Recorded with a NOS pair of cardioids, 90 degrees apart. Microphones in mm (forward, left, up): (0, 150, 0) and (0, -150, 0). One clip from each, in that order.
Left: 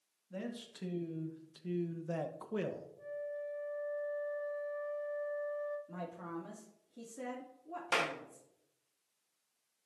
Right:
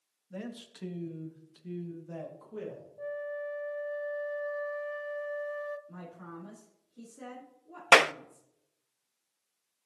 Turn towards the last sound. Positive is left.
turn(degrees=-70)